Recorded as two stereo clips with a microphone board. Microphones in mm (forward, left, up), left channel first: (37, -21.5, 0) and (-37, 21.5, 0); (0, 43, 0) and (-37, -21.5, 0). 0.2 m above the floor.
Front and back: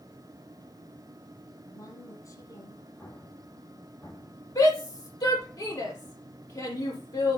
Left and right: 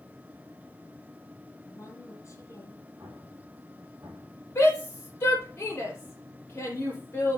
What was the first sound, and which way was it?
A woman speaking, 15° left.